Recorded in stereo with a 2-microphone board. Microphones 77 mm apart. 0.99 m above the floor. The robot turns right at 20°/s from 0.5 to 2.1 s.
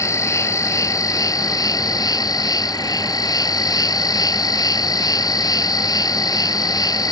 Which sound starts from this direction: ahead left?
An insect, at 0.0 s.